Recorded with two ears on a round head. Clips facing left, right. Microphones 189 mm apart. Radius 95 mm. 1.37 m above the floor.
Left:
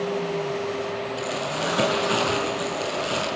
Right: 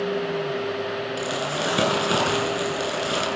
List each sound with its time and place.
1.2 s crumpling: 35° right (ahead or behind), 9 m